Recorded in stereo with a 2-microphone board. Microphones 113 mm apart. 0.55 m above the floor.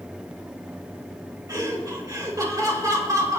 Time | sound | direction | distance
1.5 | laughter | 30° right (ahead or behind) | 2.5 m